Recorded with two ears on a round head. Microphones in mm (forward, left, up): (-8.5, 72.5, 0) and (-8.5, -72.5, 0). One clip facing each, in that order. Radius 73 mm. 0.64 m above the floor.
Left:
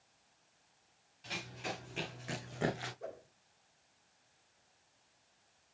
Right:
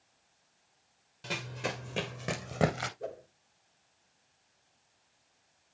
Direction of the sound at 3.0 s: 40° right (ahead or behind).